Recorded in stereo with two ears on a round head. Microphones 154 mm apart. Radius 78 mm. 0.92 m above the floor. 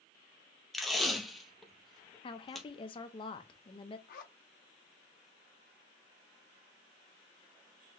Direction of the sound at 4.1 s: 50° left (ahead or behind).